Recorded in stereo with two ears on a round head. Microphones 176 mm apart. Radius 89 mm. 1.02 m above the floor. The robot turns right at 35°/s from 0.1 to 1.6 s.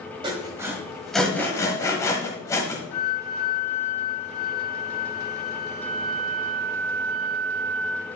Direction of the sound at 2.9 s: 80° left.